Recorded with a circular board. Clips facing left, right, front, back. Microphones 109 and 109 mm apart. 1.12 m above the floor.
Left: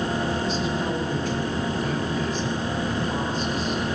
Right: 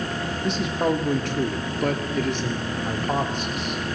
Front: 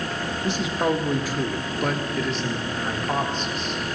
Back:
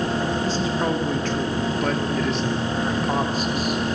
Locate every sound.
0.4 s a man speaking: 70° right, 2.5 m; by 3.8 s 100° right, 3.5 m